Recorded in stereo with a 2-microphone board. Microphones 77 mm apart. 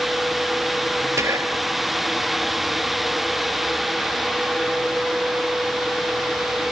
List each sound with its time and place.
1.2 s whispering: 40° right (ahead or behind), 2 m